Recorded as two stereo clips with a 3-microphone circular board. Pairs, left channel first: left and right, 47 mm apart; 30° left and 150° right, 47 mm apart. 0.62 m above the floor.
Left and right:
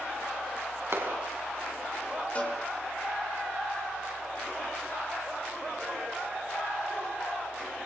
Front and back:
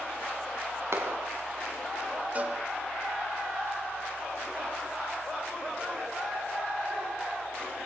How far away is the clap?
About 4 m.